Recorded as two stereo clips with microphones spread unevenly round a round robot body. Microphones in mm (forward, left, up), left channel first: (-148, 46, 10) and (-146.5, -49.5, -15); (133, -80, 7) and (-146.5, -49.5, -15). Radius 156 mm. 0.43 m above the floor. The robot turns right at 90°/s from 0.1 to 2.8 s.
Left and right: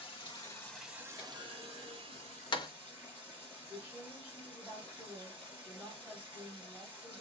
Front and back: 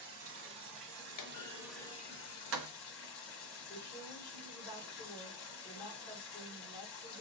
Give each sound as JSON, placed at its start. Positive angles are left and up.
{"t": 0.0, "sound": "running water", "azimuth_deg": 115, "distance_m": 1.2}
{"t": 1.2, "sound": "a clunk", "azimuth_deg": 15, "distance_m": 0.5}
{"t": 3.7, "sound": "a woman speaking", "azimuth_deg": -45, "distance_m": 1.2}